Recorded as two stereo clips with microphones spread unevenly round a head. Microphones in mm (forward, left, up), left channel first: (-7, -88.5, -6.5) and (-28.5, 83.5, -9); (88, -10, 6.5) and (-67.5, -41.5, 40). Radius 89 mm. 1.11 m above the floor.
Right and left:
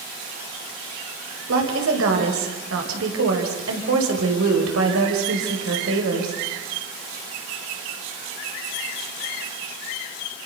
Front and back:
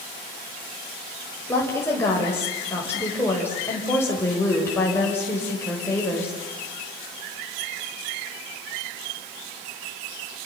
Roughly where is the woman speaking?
Left.